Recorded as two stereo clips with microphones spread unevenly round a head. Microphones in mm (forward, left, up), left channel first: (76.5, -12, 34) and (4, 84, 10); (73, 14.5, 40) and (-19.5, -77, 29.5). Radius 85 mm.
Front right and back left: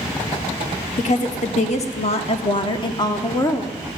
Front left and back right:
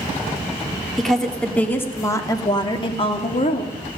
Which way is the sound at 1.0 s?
45° right.